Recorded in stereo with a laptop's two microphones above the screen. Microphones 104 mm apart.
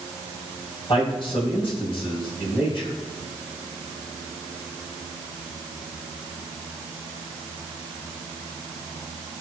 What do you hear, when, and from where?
0.9 s a man speaking: 55° left (ahead or behind), 6.5 m